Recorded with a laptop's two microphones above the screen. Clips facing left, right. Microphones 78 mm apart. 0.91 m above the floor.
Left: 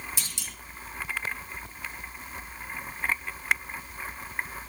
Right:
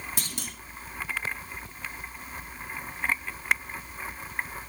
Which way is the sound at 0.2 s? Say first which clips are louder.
Right 3 dB; 50° right (ahead or behind).